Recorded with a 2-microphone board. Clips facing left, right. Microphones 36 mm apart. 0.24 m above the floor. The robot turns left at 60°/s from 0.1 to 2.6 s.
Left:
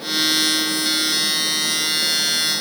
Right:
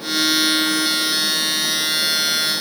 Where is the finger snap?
No finger snap in this recording.